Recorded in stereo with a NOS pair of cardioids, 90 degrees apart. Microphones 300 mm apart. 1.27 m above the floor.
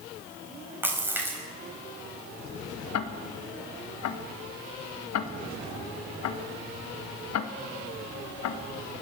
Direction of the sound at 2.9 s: 65° left.